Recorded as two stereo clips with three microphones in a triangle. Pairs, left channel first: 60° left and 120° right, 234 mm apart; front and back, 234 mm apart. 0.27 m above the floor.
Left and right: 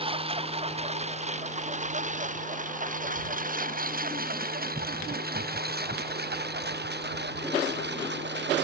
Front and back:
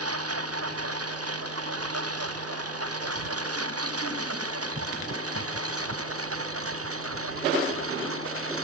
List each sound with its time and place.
0.0 s a lawn mower: 175° left; by 8.7 s 160° right